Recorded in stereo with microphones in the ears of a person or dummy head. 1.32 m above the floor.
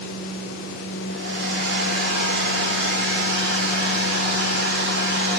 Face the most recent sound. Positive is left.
turn(degrees=-60)  # may be behind; listen again after turning